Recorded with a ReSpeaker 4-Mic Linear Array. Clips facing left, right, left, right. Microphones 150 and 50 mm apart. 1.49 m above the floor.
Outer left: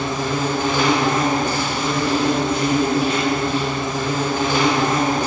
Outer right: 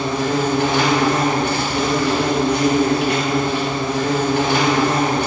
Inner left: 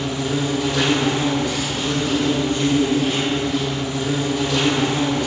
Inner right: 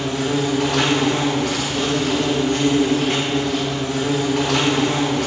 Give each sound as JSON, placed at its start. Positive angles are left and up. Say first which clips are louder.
{"t": 0.0, "sound": "an insect", "louder": "outer right 3 dB, inner right 2 dB", "side_deg": -80, "distance_m": 2.0}